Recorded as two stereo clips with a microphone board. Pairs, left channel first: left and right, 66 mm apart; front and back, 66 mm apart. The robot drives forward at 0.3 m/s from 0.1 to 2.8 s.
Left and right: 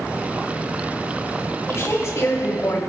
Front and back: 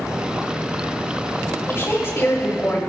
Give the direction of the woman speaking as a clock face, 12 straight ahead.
10 o'clock.